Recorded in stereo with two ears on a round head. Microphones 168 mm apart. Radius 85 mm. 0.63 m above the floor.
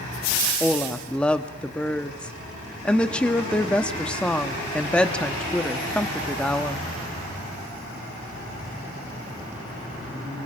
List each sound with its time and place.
0.6 s a woman speaking: 5° left (ahead or behind), 0.9 m